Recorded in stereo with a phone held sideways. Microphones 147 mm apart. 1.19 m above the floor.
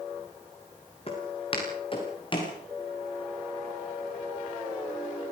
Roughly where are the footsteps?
Left.